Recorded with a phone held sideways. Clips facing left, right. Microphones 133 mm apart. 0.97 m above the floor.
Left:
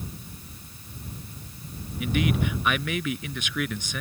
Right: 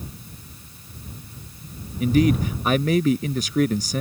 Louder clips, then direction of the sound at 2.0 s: Right 7 dB; 35° right (ahead or behind).